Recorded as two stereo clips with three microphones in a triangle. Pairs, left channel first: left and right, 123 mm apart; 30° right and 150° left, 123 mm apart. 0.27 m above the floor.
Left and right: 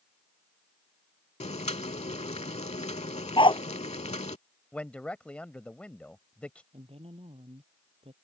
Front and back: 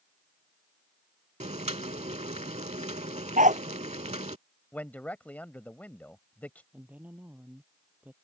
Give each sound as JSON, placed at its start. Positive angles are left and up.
{"t": 1.4, "sound": "boiling", "azimuth_deg": 120}
{"t": 3.4, "sound": "a dog barking", "azimuth_deg": 140}
{"t": 4.7, "sound": "a man speaking", "azimuth_deg": 25}
{"t": 6.7, "sound": "a woman speaking", "azimuth_deg": -130}